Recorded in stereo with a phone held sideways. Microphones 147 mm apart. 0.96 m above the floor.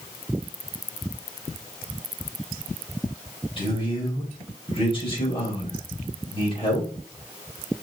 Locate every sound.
3.6 s a man speaking: 35° left (ahead or behind), 4.5 m